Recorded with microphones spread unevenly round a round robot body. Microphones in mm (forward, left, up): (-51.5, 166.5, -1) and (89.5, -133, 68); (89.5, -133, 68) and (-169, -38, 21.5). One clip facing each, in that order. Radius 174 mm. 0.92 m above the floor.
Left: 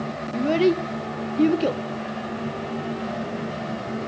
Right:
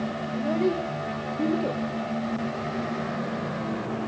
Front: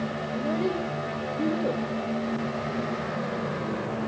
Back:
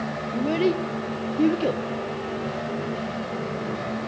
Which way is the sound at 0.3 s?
120° left.